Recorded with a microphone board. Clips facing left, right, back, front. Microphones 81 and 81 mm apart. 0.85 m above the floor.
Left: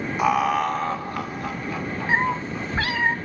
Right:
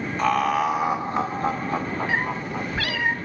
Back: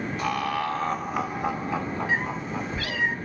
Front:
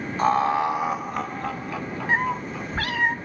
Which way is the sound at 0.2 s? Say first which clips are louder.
Left 1 dB, front 8 dB; 20° left.